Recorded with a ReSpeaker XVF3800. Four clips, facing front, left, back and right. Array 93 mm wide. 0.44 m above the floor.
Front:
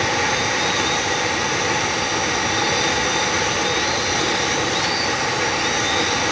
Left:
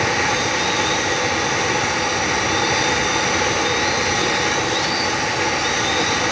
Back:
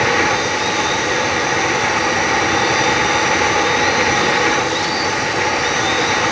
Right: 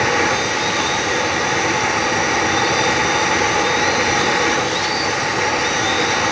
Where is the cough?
I don't hear a cough.